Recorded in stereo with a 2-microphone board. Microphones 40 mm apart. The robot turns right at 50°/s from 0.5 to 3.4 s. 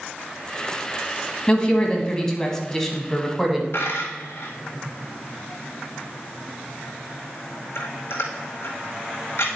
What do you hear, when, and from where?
1.5 s a woman speaking: 20° left (ahead or behind), 1.2 m; by 3.6 s centre (ahead or behind), 1.2 m
3.7 s a dropped coin: 75° left (ahead or behind), 1.3 m